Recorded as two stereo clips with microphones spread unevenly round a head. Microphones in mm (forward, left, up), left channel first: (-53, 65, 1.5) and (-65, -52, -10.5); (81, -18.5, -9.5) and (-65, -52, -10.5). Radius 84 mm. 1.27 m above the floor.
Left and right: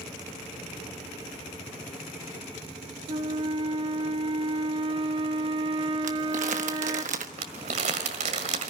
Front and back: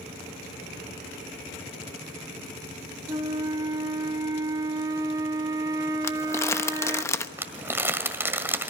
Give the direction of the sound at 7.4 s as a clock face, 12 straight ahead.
3 o'clock.